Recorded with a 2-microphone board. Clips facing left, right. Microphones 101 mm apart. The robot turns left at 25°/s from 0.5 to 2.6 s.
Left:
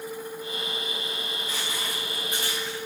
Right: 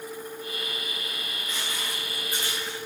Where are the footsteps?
35° left (ahead or behind), 3.5 m; by 2.8 s 10° left (ahead or behind), 4 m.